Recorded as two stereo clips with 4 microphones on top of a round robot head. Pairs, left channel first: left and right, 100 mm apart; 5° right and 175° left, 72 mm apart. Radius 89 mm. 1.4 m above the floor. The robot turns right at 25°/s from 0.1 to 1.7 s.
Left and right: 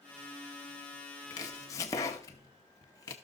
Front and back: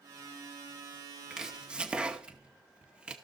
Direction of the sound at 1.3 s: 105° left.